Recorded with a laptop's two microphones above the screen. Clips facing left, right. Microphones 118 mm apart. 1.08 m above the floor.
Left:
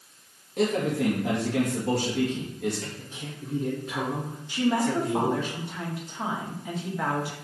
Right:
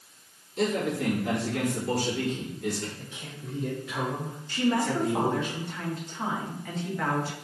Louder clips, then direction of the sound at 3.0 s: Left 3 dB; 55° left (ahead or behind).